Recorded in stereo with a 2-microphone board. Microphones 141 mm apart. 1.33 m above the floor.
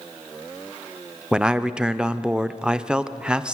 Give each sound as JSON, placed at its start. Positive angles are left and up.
{"t": 1.3, "sound": "a man speaking", "side_deg": -5, "distance_m": 0.6}